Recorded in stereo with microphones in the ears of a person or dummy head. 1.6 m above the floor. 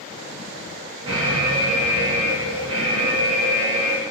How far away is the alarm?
About 0.8 m.